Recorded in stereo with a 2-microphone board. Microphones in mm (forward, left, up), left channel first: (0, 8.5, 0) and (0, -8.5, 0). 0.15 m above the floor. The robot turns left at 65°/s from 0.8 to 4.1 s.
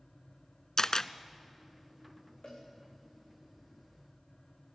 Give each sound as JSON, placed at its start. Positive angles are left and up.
{"t": 0.8, "sound": "a camera shutter", "side_deg": 40, "distance_m": 0.5}
{"t": 2.4, "sound": "a cowbell", "side_deg": 80, "distance_m": 6.5}